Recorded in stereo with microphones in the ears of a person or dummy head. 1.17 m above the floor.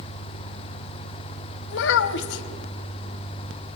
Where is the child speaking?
70° left (ahead or behind), 1.2 m.